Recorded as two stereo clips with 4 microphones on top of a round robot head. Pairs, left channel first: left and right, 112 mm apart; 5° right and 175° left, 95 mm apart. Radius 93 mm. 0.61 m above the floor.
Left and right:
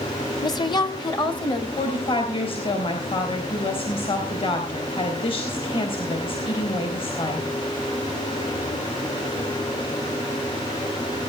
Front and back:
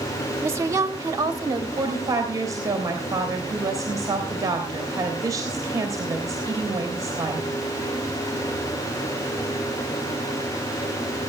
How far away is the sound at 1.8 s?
About 3.5 m.